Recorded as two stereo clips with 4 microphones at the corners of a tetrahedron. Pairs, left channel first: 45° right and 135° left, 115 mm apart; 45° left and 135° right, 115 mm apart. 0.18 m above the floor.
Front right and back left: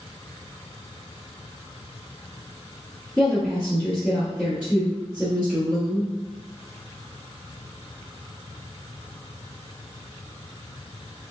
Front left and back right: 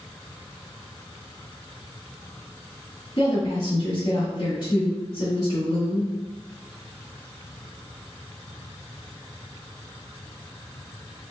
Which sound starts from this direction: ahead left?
A woman speaking, at 3.2 s.